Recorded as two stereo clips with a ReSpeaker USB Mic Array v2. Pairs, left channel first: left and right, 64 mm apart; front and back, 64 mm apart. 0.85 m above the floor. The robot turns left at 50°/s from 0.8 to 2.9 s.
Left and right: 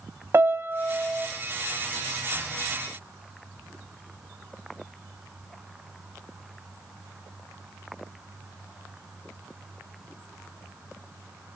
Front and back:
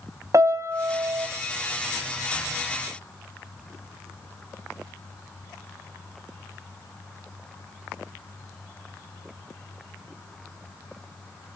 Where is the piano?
140° right, 0.6 m; by 1.3 s 165° right, 0.6 m.